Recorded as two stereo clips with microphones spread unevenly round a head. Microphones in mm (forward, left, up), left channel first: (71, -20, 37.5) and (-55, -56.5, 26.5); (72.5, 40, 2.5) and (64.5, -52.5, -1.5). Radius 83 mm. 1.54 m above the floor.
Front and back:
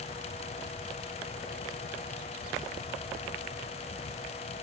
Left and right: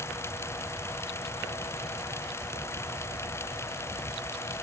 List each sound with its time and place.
Only background noise.